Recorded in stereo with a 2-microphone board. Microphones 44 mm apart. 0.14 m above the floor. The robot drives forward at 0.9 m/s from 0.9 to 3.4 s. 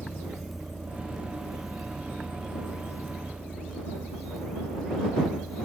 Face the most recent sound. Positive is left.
turn(degrees=-15)  # may be behind; listen again after turning